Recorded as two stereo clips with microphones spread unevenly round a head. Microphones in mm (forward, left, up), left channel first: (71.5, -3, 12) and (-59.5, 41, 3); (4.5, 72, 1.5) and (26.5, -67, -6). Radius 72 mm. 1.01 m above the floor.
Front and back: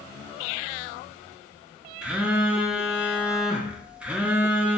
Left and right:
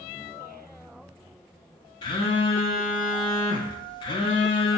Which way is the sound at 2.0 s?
95° left.